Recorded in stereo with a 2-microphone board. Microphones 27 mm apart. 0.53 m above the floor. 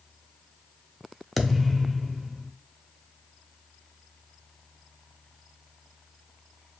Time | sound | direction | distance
1.4 | a thud | centre (ahead or behind) | 0.6 m